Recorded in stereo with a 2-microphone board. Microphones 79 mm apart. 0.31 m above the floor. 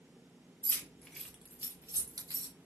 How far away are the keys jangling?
About 0.8 m.